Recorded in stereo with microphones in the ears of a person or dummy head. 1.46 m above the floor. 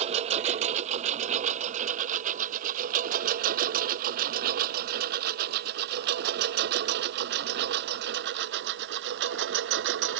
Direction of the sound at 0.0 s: 40° right (ahead or behind).